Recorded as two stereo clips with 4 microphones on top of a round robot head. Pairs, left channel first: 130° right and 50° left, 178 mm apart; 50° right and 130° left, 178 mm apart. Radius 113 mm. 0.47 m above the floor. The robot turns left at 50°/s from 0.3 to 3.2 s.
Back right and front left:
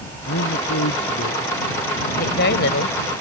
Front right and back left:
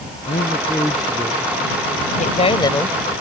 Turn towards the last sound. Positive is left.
turn(degrees=-145)